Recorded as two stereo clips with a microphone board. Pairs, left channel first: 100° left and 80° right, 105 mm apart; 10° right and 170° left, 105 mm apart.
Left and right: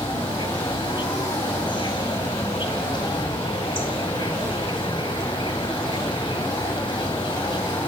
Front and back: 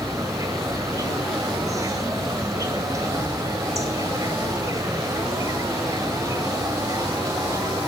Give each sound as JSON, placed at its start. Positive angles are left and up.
{"t": 0.0, "sound": "an insect", "azimuth_deg": 120, "distance_m": 1.8}